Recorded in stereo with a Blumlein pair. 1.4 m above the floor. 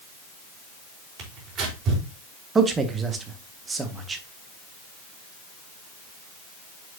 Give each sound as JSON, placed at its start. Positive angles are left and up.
{"t": 1.2, "sound": "tearing paper", "azimuth_deg": -30, "distance_m": 4.5}
{"t": 2.5, "sound": "a man speaking", "azimuth_deg": -15, "distance_m": 1.8}